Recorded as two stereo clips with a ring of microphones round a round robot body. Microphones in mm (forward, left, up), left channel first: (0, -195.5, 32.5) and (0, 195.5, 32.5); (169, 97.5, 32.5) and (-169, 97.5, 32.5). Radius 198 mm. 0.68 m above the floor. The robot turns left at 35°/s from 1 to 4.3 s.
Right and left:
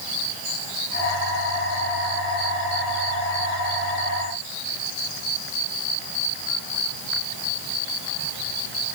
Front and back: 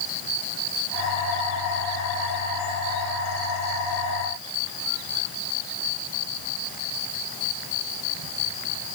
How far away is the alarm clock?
I don't hear an alarm clock.